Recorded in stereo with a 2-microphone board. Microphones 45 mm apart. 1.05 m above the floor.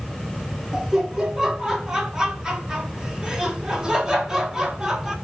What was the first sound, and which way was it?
Laughter, 15° right (ahead or behind).